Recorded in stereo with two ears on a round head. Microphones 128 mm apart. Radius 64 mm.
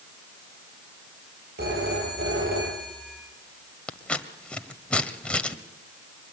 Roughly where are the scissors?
Centre.